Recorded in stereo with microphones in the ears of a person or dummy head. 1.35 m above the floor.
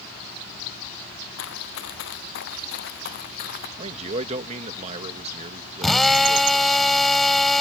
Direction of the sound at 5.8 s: Centre (ahead or behind).